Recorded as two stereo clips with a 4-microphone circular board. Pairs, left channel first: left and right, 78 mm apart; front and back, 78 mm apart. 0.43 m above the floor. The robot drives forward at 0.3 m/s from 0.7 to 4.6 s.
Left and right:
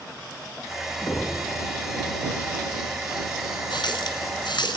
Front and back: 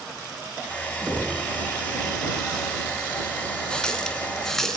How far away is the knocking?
About 5 m.